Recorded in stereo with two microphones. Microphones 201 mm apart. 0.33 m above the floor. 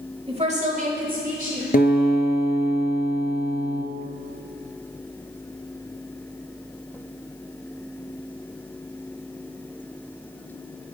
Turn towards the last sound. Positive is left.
turn(degrees=50)  # may be behind; listen again after turning